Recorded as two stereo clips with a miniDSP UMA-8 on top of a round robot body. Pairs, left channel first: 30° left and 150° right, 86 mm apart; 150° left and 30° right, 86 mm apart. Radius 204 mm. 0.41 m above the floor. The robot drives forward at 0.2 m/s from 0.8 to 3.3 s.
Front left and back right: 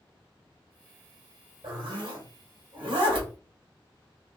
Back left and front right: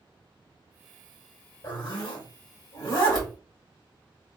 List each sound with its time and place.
1.6 s a zipper: 170° right, 1.2 m; by 3.3 s 175° right, 1.5 m